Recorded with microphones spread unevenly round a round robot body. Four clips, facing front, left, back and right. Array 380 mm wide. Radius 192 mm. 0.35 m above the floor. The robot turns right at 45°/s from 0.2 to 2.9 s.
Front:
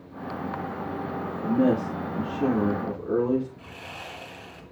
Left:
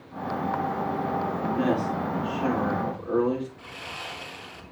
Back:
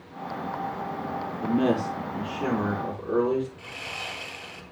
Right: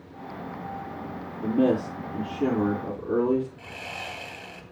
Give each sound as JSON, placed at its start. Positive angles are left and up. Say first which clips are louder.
{"t": 1.4, "sound": "a man speaking", "louder": "right 5 dB, front 1 dB", "azimuth_deg": -100, "distance_m": 8.0}
{"t": 3.6, "sound": "sawing", "louder": "right 1 dB, back 2 dB", "azimuth_deg": -90, "distance_m": 2.5}